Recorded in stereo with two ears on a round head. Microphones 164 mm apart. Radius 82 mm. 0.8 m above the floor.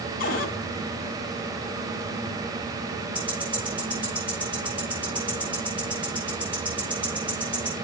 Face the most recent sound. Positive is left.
turn(degrees=-10)  # may be behind; listen again after turning